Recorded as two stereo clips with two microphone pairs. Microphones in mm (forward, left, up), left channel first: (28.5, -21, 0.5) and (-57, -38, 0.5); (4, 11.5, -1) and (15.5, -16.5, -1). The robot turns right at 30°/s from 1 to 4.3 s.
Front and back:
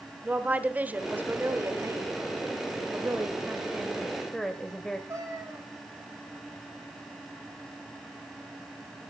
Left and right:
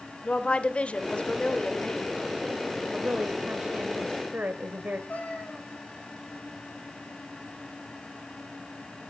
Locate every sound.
0.2 s a woman speaking: 130° left, 1.3 m; by 2.1 s 165° left, 1.3 m
2.9 s a woman speaking: 115° right, 1.4 m; by 5.0 s 70° right, 1.4 m
5.1 s a cat meowing: 140° left, 6.5 m